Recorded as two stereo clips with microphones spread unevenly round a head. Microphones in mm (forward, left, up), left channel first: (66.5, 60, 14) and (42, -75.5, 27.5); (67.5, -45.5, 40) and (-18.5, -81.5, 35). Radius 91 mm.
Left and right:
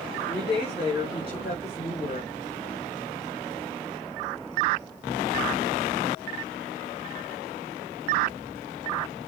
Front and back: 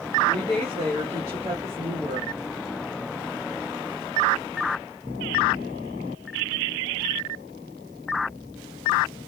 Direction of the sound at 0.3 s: 140° left.